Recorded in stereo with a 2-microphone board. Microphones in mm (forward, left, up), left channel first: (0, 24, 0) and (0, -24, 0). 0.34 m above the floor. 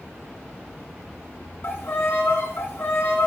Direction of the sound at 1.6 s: 55° left (ahead or behind).